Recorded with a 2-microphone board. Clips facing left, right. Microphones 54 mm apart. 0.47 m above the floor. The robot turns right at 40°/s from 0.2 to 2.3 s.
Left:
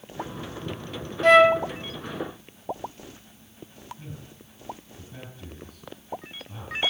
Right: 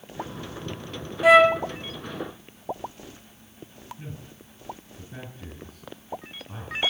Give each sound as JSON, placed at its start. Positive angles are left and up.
{"t": 1.2, "sound": "a flute", "side_deg": -10, "distance_m": 0.5}
{"t": 4.0, "sound": "a man speaking", "side_deg": -35, "distance_m": 6.0}